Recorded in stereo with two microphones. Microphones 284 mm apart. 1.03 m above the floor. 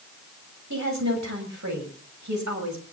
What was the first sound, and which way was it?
A woman speaking, 75° right (ahead or behind).